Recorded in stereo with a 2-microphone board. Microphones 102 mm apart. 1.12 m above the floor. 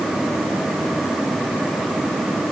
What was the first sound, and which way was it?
Only background noise.